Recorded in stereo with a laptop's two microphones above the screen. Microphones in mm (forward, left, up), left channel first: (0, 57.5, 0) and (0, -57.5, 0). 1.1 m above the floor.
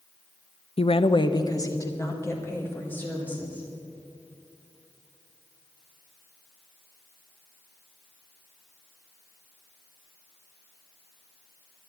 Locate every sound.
0.8 s a woman speaking: 55° left (ahead or behind), 0.5 m; by 3.7 s 15° left (ahead or behind), 2.5 m